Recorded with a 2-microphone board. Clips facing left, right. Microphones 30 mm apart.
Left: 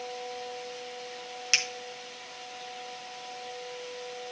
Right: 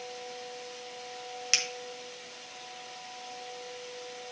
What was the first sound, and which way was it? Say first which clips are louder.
A finger snap: left 3 dB; 5° left (ahead or behind).